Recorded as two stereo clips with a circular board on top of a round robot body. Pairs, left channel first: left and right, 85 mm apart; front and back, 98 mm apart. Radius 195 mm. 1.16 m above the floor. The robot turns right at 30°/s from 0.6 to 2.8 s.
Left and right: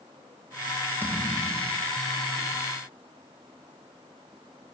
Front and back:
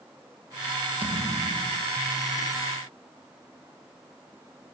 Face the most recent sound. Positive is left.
turn(degrees=-105)